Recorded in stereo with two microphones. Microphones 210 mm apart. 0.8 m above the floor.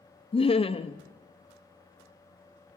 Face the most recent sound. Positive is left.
turn(degrees=25)  # may be behind; listen again after turning